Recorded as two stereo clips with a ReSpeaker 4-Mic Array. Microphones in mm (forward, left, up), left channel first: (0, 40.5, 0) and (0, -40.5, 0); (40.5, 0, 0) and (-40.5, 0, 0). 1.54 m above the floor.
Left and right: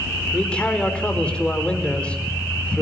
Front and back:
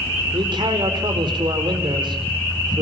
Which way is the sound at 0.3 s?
165° left.